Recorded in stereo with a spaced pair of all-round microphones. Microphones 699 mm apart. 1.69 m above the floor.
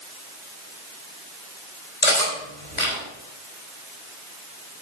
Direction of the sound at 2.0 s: 75° left (ahead or behind).